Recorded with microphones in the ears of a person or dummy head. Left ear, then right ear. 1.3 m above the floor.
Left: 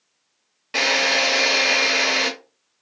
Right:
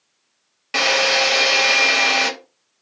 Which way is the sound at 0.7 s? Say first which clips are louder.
Right 2 dB; 20° right (ahead or behind).